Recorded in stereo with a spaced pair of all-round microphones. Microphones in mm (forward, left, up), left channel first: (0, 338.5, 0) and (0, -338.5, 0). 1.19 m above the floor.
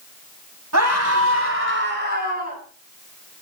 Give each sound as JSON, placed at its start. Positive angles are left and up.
{"t": 0.7, "sound": "a scream", "side_deg": -25, "distance_m": 8.0}